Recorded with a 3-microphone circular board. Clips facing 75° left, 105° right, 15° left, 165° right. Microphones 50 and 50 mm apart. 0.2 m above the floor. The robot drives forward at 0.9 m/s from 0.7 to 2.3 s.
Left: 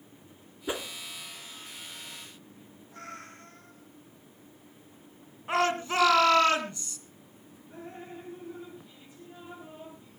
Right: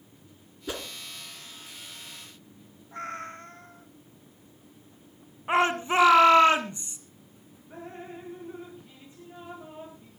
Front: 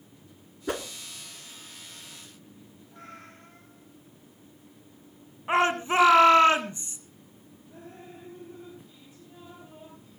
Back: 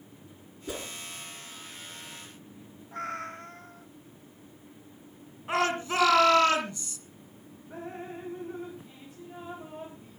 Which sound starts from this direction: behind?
Dripping, at 7.7 s.